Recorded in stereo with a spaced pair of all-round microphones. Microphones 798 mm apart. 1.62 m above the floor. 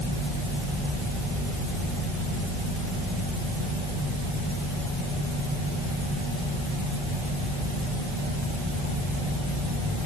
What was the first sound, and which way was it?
Only background noise.